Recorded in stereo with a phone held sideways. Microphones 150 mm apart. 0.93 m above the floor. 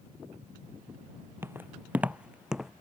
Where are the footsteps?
15° right (ahead or behind); by 2.7 s centre (ahead or behind).